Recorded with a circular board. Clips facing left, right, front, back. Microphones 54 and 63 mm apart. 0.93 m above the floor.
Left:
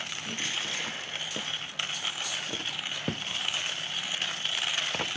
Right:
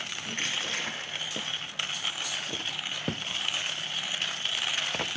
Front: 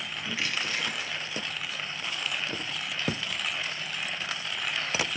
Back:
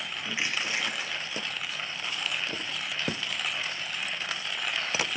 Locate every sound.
0.3 s crushing: 110° right, 1.1 m